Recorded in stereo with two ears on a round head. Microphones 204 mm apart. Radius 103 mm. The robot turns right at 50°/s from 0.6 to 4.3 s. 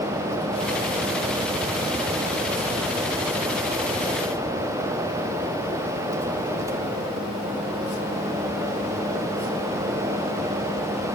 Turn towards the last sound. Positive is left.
No sound to turn to.